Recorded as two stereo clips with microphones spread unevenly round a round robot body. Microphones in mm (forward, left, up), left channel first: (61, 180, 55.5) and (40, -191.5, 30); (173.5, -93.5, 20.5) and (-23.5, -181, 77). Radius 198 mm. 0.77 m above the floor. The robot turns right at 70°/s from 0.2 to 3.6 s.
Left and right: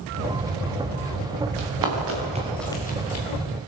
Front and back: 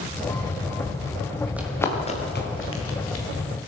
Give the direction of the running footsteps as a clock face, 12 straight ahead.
3 o'clock.